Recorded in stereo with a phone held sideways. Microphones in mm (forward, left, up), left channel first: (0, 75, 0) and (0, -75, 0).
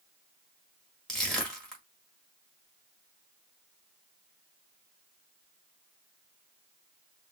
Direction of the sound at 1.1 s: 5° left (ahead or behind).